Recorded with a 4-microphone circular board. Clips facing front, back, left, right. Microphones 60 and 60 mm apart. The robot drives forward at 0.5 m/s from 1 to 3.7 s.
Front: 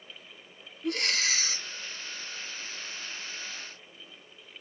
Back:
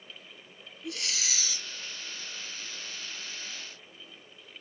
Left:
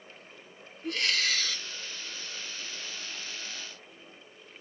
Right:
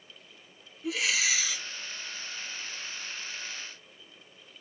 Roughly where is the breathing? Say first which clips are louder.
Front 7 dB, right 1 dB; ahead.